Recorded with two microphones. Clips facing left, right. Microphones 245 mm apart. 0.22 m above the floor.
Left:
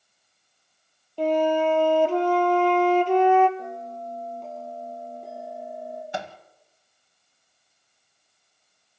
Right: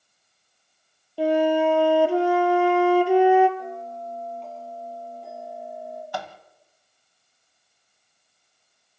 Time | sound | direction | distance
1.2 | a flute | 10° right (ahead or behind) | 1.1 m
3.6 | a bell | 45° left (ahead or behind) | 6 m
6.1 | a microwave | 20° left (ahead or behind) | 1.1 m